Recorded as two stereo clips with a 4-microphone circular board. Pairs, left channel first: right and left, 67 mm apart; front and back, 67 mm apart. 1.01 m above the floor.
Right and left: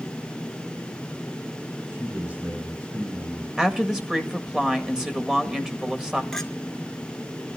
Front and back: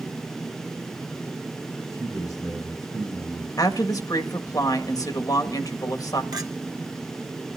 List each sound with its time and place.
1.8 s a man speaking: 30° left, 6 m
3.6 s a woman speaking: 15° left, 1.7 m
6.3 s a clink: 175° right, 1.5 m